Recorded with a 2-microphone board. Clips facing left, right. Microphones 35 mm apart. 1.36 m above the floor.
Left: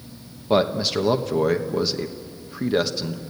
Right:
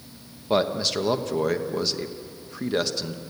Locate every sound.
0.5 s a man speaking: 5° left (ahead or behind), 1.1 m